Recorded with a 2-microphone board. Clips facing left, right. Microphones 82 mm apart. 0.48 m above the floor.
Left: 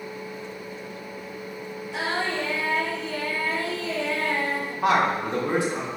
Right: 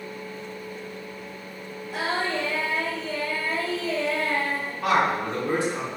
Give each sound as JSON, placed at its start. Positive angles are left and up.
{"t": 1.9, "sound": "singing", "side_deg": -50, "distance_m": 1.4}
{"t": 4.8, "sound": "a man speaking", "side_deg": 20, "distance_m": 0.9}